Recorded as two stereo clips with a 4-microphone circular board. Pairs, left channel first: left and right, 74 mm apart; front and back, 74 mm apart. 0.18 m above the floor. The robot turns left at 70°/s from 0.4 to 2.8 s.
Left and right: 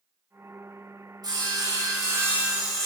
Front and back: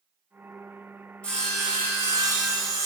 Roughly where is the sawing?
Right.